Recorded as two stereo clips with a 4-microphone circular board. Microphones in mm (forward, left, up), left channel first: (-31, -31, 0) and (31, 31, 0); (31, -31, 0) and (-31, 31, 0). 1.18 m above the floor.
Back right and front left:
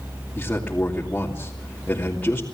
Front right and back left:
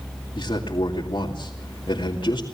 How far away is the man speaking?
About 2.5 m.